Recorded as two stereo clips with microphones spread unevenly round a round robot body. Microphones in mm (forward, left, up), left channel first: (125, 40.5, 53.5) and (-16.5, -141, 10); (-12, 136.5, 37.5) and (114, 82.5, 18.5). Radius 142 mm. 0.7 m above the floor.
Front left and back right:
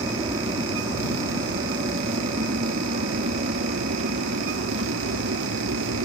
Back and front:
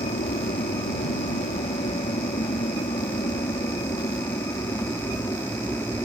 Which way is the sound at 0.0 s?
165° left.